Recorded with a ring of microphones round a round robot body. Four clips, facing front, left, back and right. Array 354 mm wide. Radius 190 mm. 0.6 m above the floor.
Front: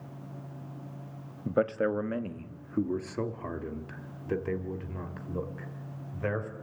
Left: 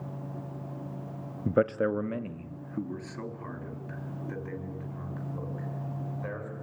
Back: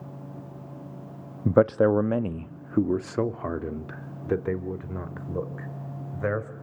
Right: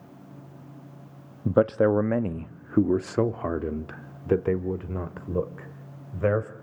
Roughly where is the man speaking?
Behind.